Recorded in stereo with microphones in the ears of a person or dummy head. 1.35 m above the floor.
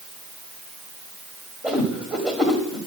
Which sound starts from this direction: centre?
A whoosh, at 1.6 s.